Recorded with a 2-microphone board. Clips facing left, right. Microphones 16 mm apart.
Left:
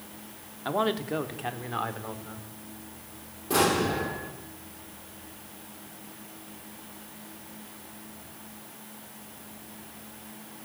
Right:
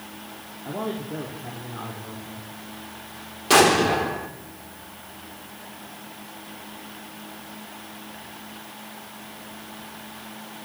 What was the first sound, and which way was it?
A man speaking, 50° left (ahead or behind).